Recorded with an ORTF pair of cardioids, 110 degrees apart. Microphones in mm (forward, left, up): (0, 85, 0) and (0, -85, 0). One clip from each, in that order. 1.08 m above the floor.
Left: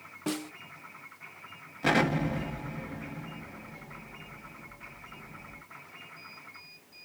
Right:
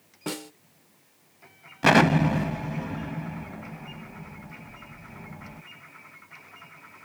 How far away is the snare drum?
About 0.6 m.